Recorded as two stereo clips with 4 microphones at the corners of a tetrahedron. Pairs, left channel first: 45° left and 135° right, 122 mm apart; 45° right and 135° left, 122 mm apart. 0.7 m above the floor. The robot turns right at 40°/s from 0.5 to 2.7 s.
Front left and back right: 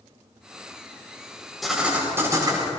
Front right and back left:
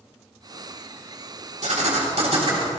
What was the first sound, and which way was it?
Writing, 135° left.